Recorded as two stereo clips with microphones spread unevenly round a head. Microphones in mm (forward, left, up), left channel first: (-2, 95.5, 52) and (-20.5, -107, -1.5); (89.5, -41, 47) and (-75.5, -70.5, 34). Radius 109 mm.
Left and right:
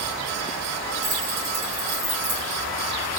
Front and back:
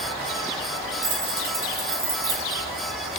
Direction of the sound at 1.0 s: 115° right.